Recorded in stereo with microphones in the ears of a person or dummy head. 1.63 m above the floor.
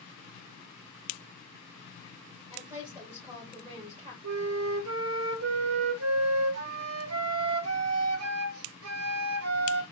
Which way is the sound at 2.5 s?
20° right (ahead or behind).